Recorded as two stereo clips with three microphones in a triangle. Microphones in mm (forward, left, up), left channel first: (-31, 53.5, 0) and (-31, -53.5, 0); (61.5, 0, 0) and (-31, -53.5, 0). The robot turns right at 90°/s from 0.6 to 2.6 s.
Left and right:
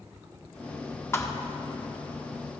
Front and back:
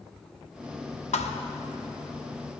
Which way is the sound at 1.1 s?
20° left.